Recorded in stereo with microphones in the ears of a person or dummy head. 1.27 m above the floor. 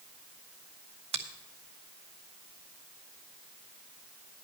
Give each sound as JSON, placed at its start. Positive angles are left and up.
{"t": 1.1, "sound": "a finger snap", "side_deg": -35, "distance_m": 0.8}